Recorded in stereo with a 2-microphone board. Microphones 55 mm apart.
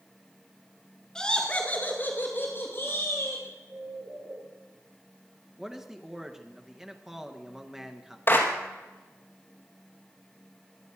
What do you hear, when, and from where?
1.1 s laughter: 15° left (ahead or behind), 1.6 m; by 3.4 s 50° left (ahead or behind), 3.5 m
3.7 s a bird: 40° right (ahead or behind), 6 m
5.6 s a man speaking: 10° right (ahead or behind), 1.5 m
8.3 s a clap: 40° left (ahead or behind), 2.5 m